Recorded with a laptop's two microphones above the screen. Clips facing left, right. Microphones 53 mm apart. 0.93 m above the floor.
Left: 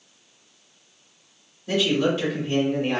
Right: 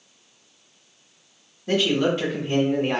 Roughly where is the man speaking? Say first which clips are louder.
Right 1 dB; right.